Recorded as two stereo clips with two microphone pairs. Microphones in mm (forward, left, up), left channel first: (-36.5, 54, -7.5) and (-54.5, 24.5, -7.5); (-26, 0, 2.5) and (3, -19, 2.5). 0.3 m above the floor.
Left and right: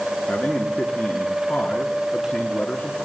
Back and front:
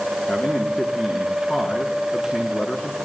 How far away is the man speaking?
About 4 m.